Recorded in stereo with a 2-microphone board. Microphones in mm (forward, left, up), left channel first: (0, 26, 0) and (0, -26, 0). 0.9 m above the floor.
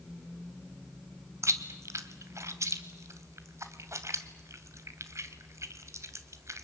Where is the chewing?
70° right (ahead or behind), 1.6 m.